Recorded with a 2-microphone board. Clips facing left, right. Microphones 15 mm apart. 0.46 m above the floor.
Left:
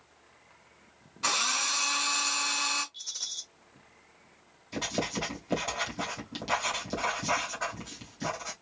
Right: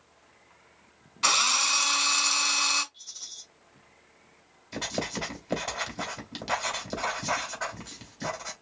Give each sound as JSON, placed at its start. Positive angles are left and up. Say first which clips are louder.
{"t": 1.2, "sound": "a drill", "louder": "right 5 dB", "side_deg": -40, "distance_m": 2.0}
{"t": 2.9, "sound": "a rattle", "louder": "left 5 dB", "side_deg": 25, "distance_m": 1.7}
{"t": 4.7, "sound": "writing", "louder": "even", "side_deg": -15, "distance_m": 3.0}